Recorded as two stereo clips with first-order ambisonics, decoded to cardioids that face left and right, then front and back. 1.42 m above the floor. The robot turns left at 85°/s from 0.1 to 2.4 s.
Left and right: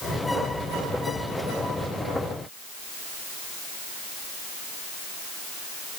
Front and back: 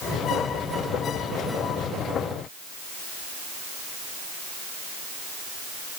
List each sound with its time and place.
Only background noise.